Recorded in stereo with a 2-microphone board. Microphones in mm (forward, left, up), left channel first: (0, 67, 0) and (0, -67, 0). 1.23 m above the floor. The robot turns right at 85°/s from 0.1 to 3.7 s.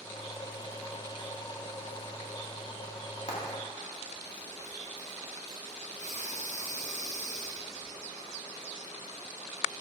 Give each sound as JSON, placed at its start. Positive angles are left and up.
{"t": 3.3, "sound": "frying", "side_deg": 55, "distance_m": 2.0}
{"t": 6.0, "sound": "breathing", "side_deg": -60, "distance_m": 1.4}